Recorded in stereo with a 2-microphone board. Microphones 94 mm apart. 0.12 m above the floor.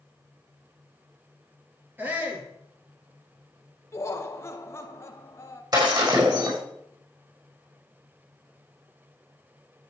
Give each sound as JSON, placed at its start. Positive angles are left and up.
{"t": 2.0, "sound": "a shout", "side_deg": -20, "distance_m": 2.5}
{"t": 3.9, "sound": "laughter", "side_deg": 30, "distance_m": 1.4}
{"t": 5.7, "sound": "breaking glass", "side_deg": -40, "distance_m": 5.0}